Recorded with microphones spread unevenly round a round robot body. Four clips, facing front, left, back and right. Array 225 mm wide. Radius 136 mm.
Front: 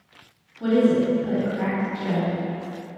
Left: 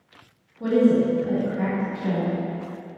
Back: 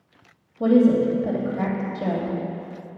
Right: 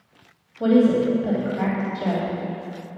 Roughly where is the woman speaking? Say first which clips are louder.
Right 2 dB, back 2 dB; behind right.